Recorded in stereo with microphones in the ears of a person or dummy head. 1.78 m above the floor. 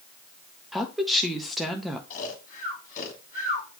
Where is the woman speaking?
Centre (ahead or behind), 1.3 m.